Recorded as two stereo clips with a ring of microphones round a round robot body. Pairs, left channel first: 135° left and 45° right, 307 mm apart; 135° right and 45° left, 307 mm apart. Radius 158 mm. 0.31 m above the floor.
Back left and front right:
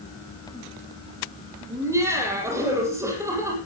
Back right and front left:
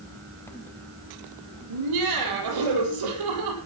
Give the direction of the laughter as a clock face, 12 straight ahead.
11 o'clock.